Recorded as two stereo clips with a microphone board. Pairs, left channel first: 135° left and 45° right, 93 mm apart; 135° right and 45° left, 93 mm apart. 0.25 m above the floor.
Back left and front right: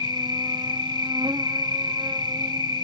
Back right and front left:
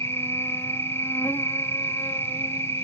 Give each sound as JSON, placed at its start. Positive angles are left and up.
{"t": 0.0, "sound": "an insect", "azimuth_deg": -75, "distance_m": 1.0}